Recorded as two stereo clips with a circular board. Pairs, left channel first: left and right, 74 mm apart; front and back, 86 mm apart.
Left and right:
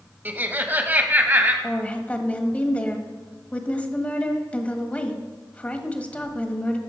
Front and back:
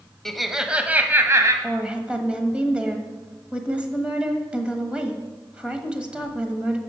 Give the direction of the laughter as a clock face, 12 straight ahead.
3 o'clock.